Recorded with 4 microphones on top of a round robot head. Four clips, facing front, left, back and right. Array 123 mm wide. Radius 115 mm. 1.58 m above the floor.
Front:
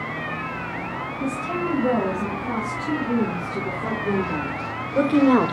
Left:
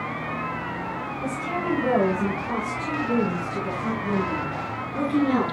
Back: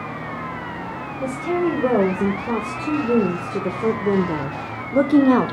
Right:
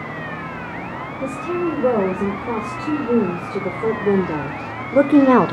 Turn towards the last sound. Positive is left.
turn(degrees=-85)